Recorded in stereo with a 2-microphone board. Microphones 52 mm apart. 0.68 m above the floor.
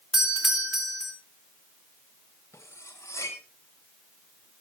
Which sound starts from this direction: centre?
A doorbell, at 0.1 s.